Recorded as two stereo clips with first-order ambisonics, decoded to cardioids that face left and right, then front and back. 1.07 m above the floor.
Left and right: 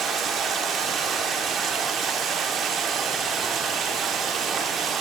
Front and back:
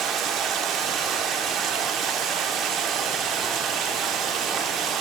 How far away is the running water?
About 0.9 m.